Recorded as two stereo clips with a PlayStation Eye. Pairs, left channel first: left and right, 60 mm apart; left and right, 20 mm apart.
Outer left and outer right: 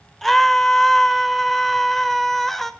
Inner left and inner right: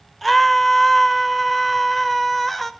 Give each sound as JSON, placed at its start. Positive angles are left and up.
{"t": 0.2, "sound": "a scream", "side_deg": 5, "distance_m": 0.8}